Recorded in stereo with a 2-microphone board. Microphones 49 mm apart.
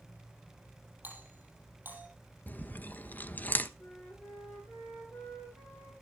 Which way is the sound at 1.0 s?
35° right (ahead or behind).